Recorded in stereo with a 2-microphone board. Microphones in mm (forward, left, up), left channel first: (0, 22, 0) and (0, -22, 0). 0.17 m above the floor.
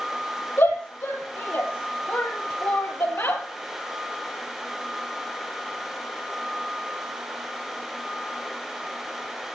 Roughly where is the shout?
Left.